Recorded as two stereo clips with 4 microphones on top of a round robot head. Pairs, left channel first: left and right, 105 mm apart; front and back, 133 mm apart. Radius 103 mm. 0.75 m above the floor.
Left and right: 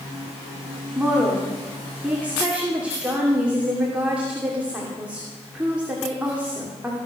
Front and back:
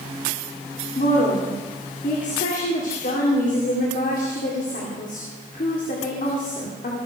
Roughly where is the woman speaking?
Ahead.